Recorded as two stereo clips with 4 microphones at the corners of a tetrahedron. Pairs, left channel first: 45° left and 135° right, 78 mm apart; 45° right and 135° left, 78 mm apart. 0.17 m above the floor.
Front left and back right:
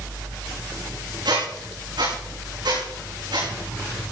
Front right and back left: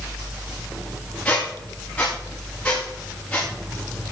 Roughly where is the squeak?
Behind right.